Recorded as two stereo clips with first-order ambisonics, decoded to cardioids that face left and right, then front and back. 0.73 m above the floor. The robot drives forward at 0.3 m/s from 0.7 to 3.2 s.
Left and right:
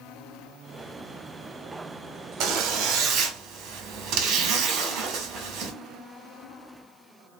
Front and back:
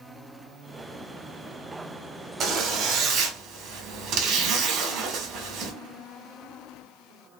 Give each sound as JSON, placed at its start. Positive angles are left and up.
{"t": 2.4, "sound": "a zipper", "azimuth_deg": -130, "distance_m": 1.0}